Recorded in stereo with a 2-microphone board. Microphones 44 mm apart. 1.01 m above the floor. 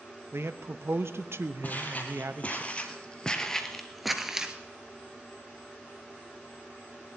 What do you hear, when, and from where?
0.3 s a man speaking: 75° right (ahead or behind), 0.8 m
1.6 s footsteps: 45° left (ahead or behind), 1.9 m; by 4.5 s 15° right (ahead or behind), 1.0 m